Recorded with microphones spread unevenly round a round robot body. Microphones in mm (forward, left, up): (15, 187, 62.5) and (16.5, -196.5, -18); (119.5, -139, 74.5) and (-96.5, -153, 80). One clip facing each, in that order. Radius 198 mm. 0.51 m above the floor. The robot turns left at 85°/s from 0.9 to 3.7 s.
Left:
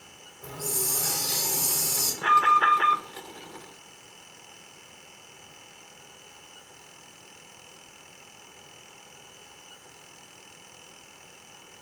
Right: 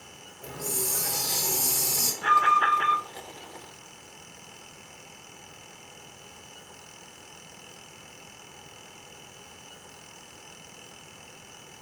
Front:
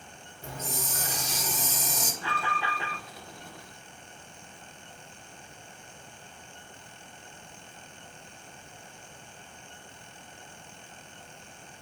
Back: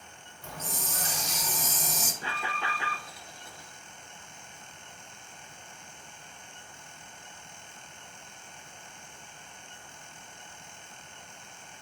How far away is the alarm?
About 0.5 m.